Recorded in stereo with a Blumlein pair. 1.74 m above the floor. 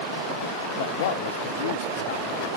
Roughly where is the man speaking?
Ahead left.